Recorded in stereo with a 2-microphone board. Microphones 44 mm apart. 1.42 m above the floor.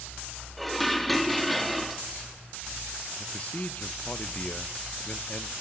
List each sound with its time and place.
0.6 s dishes clattering: centre (ahead or behind), 1.8 m
3.2 s a man speaking: 35° left (ahead or behind), 1.0 m